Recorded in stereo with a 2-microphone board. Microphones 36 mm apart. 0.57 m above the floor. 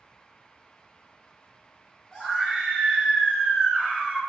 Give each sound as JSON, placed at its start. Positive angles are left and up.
{"t": 2.1, "sound": "a scream", "side_deg": 15, "distance_m": 1.4}